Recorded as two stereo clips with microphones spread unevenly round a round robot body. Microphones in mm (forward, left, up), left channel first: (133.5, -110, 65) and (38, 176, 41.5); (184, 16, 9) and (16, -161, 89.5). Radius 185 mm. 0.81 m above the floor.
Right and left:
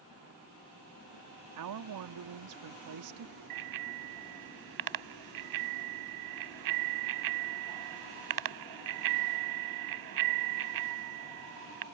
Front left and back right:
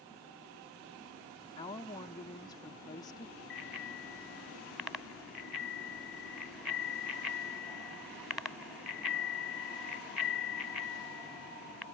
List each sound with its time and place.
1.6 s a woman speaking: 115° left
3.5 s a bicycle bell: 135° left